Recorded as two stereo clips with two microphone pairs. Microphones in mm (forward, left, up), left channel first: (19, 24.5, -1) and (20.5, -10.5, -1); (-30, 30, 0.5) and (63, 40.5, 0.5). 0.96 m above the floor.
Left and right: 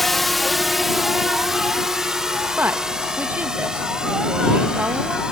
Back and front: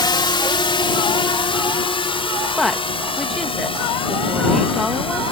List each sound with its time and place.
0.0 s a drone: 175° left; by 5.3 s 160° right
2.6 s a woman speaking: 85° right